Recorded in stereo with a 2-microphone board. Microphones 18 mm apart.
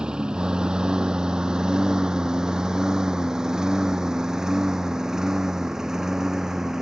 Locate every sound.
0.0 s a lawn mower: 60° right (ahead or behind); by 6.8 s 35° right (ahead or behind)